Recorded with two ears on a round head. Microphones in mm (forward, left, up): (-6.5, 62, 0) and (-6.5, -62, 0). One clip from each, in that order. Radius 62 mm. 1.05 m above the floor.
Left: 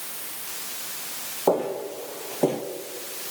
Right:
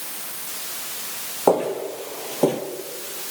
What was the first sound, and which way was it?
Footsteps, 40° right (ahead or behind).